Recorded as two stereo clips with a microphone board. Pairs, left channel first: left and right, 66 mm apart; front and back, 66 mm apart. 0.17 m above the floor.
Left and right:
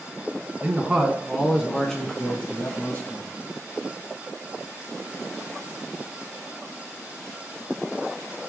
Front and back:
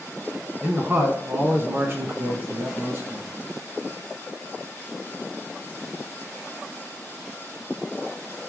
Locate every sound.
0.6 s a man speaking: 145° right, 1.8 m; by 3.3 s 135° left, 2.5 m